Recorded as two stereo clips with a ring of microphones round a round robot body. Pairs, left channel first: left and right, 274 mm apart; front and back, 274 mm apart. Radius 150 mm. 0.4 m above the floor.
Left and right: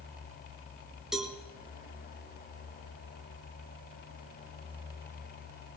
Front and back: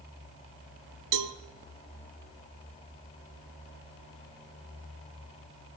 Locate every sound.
1.1 s a cowbell: straight behind, 1.4 m